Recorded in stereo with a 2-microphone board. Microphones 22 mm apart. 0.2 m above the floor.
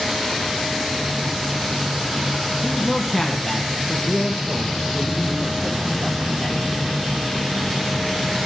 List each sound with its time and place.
2.6 s a man speaking: 5° left (ahead or behind), 1.2 m; by 6.8 s 10° left (ahead or behind), 4.5 m